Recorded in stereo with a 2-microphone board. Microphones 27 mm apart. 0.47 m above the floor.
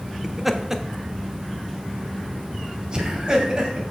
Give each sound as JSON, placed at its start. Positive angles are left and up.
{"t": 0.2, "sound": "laughter", "side_deg": -5, "distance_m": 0.8}